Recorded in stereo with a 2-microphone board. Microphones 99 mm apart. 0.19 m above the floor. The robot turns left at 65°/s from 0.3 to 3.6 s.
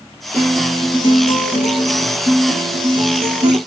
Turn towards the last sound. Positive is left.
turn(degrees=-45)